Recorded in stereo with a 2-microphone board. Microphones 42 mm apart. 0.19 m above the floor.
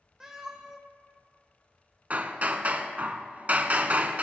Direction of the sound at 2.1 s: 40° right (ahead or behind).